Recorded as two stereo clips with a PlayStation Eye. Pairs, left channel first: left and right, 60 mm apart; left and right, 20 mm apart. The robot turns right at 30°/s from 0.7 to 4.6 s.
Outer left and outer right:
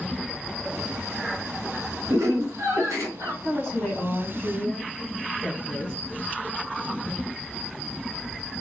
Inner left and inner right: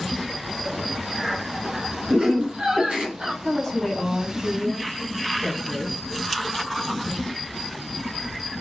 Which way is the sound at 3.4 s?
10° left (ahead or behind).